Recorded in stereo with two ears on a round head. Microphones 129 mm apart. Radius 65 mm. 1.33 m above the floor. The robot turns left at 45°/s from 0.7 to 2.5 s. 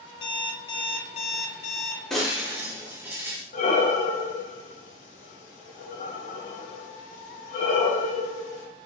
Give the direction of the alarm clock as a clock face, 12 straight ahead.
7 o'clock.